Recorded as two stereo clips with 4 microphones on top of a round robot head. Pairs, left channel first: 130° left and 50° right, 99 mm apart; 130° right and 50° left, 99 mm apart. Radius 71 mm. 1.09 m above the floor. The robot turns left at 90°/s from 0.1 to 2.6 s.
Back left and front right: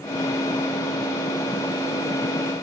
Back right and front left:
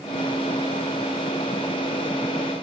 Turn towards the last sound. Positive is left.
No sound to turn to.